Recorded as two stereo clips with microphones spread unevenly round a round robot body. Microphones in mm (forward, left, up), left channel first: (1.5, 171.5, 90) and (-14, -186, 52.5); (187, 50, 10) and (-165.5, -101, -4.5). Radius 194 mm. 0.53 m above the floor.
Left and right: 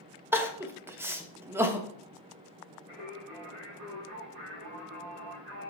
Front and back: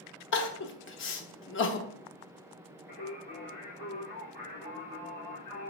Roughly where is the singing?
Ahead right.